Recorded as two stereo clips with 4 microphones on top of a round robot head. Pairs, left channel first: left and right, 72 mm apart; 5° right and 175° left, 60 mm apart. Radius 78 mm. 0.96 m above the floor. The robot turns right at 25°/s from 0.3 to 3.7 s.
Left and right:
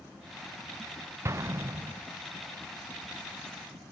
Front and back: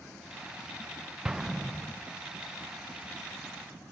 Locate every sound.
1.2 s an explosion: 110° right, 0.9 m; by 2.0 s 90° right, 0.9 m